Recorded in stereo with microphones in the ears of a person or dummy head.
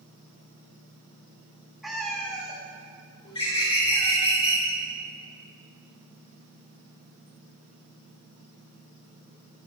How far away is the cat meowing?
About 1.3 m.